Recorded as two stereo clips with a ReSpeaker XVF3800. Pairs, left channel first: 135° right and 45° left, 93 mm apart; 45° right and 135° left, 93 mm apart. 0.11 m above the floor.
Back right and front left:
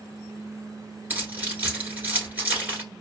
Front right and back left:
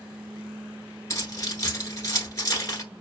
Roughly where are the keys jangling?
Ahead.